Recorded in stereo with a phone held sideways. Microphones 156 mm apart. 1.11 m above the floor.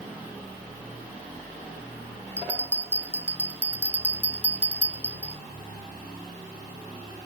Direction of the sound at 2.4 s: 10° left (ahead or behind).